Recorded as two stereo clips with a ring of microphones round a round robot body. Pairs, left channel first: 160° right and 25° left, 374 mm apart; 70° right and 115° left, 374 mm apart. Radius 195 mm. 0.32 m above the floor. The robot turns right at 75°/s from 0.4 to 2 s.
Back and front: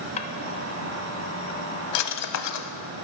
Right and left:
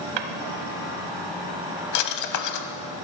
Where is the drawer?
130° left, 1.0 m; by 2.7 s 110° right, 1.0 m.